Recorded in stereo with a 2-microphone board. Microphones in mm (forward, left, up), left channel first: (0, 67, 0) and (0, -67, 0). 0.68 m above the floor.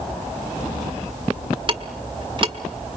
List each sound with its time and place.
1.7 s ticking: 40° right (ahead or behind), 1.2 m